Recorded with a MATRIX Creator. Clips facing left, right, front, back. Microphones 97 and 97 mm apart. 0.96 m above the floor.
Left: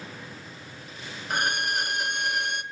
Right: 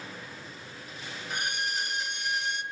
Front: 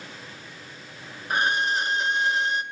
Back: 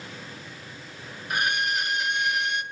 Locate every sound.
1.3 s a violin: 60° left, 0.9 m